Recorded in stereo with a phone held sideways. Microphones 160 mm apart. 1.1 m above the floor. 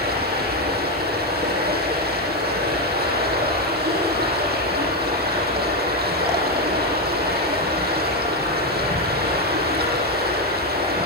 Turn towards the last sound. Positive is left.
turn(degrees=-85)